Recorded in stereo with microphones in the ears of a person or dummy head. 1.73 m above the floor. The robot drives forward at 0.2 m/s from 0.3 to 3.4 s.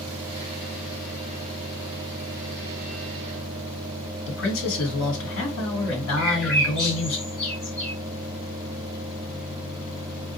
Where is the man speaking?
70° left (ahead or behind), 1.6 m.